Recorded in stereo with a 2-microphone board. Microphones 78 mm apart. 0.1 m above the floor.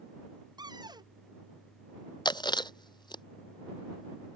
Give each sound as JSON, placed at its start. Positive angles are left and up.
{"t": 0.6, "sound": "a cupboard door", "side_deg": -60}
{"t": 2.2, "sound": "chewing", "side_deg": 70}